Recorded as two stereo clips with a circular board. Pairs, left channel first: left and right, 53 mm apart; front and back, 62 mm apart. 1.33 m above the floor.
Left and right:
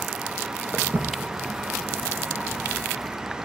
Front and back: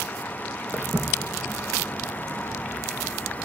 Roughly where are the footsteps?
Behind right.